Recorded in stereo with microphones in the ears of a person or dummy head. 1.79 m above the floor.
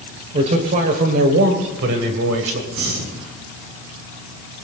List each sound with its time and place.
0.3 s a man speaking: 35° right (ahead or behind), 1.5 m; by 2.6 s 75° right (ahead or behind), 1.9 m
2.7 s breathing: 75° right (ahead or behind), 6 m